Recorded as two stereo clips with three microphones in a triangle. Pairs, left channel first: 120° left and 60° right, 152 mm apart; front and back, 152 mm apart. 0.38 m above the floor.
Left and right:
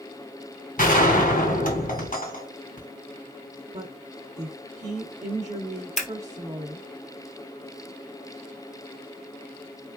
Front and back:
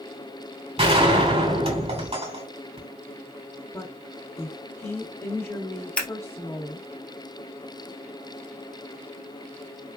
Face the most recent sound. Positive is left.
turn(degrees=80)